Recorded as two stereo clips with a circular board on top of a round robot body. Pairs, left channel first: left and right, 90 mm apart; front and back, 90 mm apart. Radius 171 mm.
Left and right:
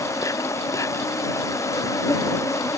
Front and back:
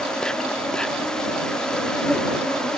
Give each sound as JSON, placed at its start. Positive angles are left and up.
{"t": 0.0, "sound": "an insect", "azimuth_deg": 75}